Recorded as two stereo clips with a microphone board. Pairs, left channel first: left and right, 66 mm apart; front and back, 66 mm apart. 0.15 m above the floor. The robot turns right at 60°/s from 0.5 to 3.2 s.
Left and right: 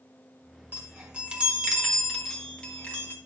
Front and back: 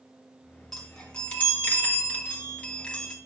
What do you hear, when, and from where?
0.7 s a chime: 75° right, 1.7 m; by 3.2 s 70° left, 1.7 m